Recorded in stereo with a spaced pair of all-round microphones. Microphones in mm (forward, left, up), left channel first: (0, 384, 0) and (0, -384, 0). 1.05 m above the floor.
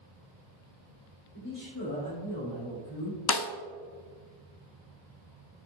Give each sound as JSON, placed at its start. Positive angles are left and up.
{"t": 1.3, "sound": "a man speaking", "side_deg": 25, "distance_m": 3.0}
{"t": 3.3, "sound": "a snare drum", "side_deg": 35, "distance_m": 0.5}